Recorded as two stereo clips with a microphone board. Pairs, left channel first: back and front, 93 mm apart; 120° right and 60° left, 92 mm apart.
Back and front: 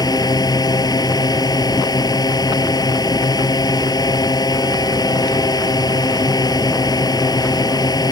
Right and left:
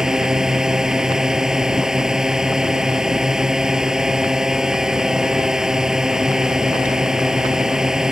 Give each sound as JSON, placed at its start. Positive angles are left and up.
{"t": 0.0, "sound": "a drone", "azimuth_deg": 145}